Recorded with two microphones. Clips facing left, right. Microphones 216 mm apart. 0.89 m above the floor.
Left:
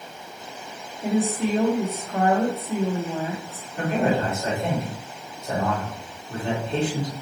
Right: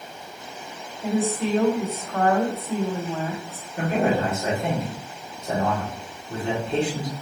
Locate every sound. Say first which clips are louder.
1.0 s a woman speaking: left 1 dB; 15° left (ahead or behind), 0.8 m
3.8 s a man speaking: even; 25° right (ahead or behind), 1.8 m